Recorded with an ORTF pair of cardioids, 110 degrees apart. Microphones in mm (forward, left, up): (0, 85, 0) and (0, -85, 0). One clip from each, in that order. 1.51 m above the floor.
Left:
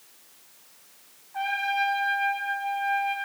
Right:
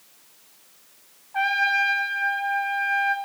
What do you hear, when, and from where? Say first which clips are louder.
1.3 s a trumpet: right 5 dB; 45° right, 2.5 m